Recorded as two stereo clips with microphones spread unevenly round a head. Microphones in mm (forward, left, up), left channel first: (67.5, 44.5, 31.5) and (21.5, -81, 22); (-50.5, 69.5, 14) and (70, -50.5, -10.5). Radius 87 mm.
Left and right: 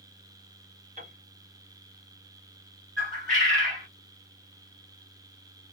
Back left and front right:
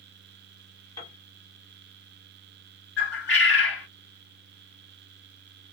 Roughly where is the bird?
Behind left.